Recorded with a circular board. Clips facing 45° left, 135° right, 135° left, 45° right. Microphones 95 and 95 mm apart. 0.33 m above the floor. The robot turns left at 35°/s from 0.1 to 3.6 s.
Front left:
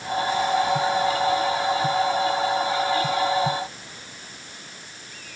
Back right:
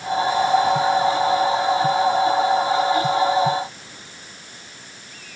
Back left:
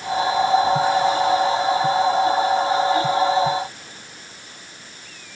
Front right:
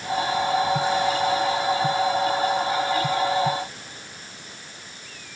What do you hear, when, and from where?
Only background noise.